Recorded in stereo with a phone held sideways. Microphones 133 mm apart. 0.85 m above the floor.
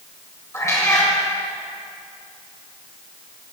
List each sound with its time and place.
0.5 s a cat meowing: 25° left (ahead or behind), 2 m